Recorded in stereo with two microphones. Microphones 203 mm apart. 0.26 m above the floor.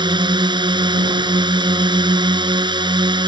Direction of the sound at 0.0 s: 20° right (ahead or behind).